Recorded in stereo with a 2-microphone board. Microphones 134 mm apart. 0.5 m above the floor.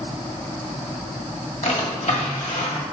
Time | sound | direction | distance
1.6 | a drawer | 65° left (ahead or behind) | 1.6 m